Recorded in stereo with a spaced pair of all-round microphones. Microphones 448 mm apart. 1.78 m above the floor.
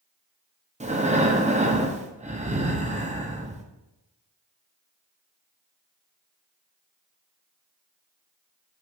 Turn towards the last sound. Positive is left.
turn(degrees=-15)  # may be behind; listen again after turning